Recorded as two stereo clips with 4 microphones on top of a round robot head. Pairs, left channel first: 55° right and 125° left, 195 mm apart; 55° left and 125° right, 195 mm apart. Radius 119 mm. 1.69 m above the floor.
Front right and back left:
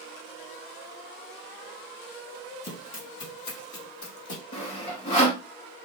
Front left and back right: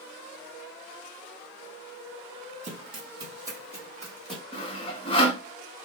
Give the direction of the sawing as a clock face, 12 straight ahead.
12 o'clock.